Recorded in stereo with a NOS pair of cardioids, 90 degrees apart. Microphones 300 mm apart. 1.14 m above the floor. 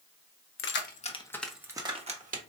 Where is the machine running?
I don't hear a machine running.